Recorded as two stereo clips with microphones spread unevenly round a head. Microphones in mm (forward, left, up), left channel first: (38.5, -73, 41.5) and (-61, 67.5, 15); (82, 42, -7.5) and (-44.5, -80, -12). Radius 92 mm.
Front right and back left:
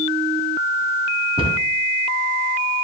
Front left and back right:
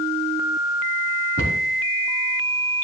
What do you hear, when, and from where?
1.4 s a cupboard door: 175° right, 3 m